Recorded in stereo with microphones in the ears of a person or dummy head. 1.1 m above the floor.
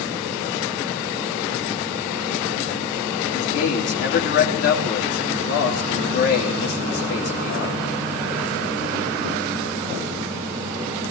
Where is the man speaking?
55° left (ahead or behind), 2.5 m.